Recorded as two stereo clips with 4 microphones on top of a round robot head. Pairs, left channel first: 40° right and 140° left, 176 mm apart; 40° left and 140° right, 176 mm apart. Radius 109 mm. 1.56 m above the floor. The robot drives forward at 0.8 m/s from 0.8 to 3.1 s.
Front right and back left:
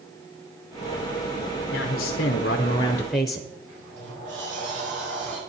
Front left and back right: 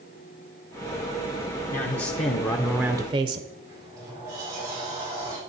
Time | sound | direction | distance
1.7 | a man speaking | 10° right | 1.1 m
3.6 | a sliding door | 150° left | 6 m